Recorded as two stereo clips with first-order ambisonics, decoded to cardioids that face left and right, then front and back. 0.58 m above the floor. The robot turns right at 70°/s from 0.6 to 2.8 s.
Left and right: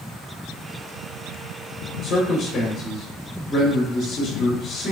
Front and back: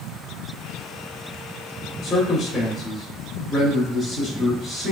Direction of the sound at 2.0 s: 50° left.